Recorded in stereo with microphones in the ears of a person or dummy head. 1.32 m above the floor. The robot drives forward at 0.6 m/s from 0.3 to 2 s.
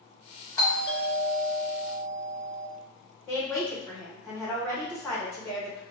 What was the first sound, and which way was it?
A doorbell, 15° left (ahead or behind).